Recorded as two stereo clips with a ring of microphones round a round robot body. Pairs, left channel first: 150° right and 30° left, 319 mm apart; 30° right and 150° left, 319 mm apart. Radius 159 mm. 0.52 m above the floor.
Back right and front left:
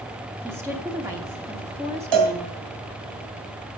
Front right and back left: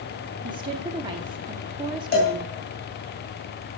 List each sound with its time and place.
0.4 s a woman speaking: 100° left, 0.9 m
2.1 s a cowbell: 30° left, 2.5 m